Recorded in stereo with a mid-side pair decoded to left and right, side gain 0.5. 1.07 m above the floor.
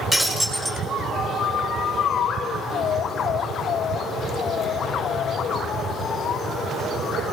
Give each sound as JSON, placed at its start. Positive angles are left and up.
{"t": 0.1, "sound": "breaking glass", "azimuth_deg": -15, "distance_m": 7.0}